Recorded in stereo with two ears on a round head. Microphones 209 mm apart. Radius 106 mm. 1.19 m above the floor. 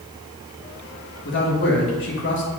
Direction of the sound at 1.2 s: 55° left (ahead or behind).